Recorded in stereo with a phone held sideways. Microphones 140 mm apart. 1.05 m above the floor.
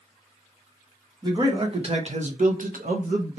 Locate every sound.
1.2 s a man speaking: 30° right (ahead or behind), 1.0 m; by 3.4 s 60° right (ahead or behind), 0.7 m